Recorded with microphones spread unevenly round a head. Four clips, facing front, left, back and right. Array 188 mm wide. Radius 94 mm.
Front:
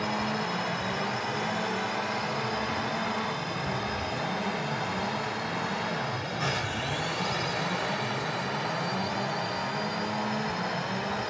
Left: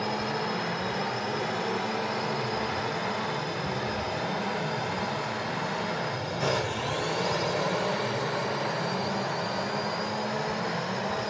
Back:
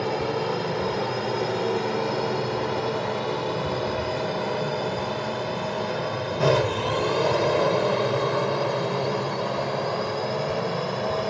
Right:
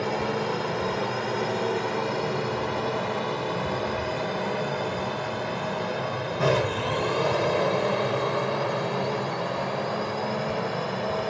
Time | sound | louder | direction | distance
0.0 | a drone | right 3 dB, back 5 dB | 155° right | ?